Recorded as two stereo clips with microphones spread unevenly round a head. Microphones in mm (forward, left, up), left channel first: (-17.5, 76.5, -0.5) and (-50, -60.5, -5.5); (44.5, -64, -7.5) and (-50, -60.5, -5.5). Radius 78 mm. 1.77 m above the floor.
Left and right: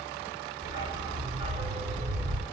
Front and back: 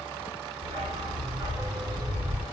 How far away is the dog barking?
About 2.5 m.